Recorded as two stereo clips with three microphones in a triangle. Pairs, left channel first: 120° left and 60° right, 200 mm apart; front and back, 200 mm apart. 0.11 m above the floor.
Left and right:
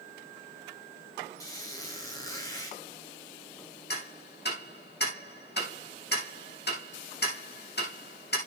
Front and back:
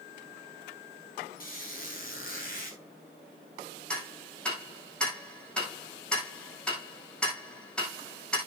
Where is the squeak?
45° left, 4.5 m.